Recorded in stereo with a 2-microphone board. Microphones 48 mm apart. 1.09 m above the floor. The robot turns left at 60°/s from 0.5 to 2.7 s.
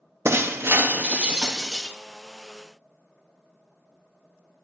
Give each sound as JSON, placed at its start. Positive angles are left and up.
{"t": 0.2, "sound": "breaking glass", "azimuth_deg": -110, "distance_m": 0.6}